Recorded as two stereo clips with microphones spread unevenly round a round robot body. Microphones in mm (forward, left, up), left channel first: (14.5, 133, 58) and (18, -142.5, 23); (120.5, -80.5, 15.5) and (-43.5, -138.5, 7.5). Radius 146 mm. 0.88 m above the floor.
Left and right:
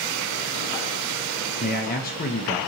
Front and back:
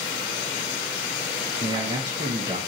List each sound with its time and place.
1.6 s a man speaking: 145° left, 0.6 m